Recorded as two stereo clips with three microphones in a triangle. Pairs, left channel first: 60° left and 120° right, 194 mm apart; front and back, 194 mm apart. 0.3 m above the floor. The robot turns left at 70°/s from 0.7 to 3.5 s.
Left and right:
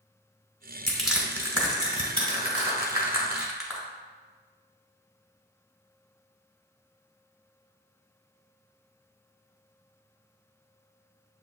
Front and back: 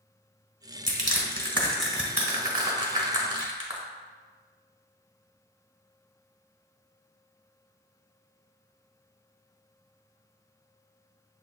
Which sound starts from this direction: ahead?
Crushing, at 0.9 s.